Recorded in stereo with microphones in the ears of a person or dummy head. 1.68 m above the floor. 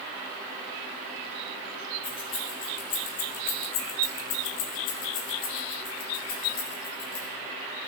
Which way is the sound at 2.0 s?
10° left (ahead or behind).